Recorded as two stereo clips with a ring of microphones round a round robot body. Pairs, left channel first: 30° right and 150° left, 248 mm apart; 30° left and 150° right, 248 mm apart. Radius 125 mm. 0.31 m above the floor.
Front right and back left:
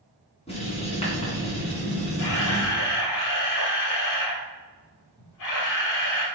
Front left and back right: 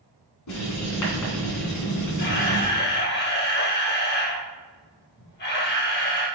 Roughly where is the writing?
Ahead left.